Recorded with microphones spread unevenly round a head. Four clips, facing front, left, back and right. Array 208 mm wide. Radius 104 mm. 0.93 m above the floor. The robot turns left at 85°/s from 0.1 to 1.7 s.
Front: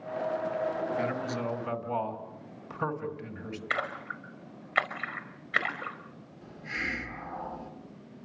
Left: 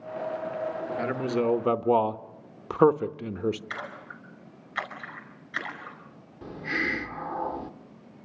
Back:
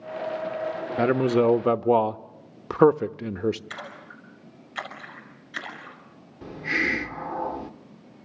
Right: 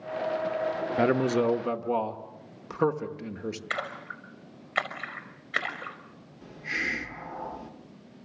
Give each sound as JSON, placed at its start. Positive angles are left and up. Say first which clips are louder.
{"t": 1.0, "sound": "a man speaking", "louder": "right 4 dB, back 11 dB", "azimuth_deg": -140, "distance_m": 0.9}
{"t": 3.7, "sound": "a splash", "louder": "right 3 dB, front 6 dB", "azimuth_deg": -45, "distance_m": 5.5}
{"t": 6.4, "sound": "a hiss", "louder": "left 4 dB, back 10 dB", "azimuth_deg": 150, "distance_m": 0.9}